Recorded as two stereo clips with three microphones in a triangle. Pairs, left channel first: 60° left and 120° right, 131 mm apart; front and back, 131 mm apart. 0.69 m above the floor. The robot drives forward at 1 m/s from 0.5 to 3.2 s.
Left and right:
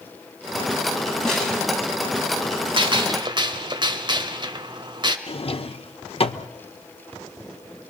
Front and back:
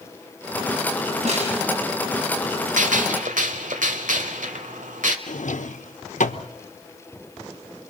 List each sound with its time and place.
1.2 s a snare drum: 145° left, 5.5 m; by 1.6 s 150° left, 6 m
2.8 s a gunshot: 170° right, 1.1 m
5.3 s a drawer: 15° left, 0.9 m